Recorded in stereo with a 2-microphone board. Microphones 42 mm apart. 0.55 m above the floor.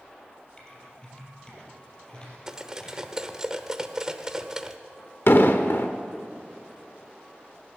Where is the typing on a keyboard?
25° left (ahead or behind), 3.5 m.